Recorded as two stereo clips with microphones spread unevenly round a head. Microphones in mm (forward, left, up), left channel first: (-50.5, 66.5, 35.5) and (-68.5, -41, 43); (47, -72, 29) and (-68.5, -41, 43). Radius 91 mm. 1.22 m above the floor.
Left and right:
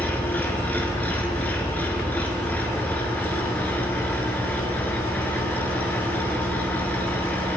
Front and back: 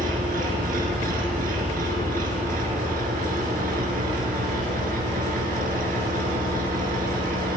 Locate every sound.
0.0 s an engine running: 155° left, 5 m